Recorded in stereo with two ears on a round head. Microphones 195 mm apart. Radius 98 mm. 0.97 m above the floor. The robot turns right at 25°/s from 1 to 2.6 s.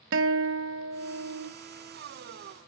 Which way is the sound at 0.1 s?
65° right (ahead or behind).